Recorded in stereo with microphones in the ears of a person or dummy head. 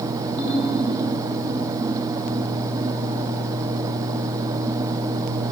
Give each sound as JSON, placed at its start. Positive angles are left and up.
{"t": 0.4, "sound": "a ringtone", "side_deg": -25, "distance_m": 1.2}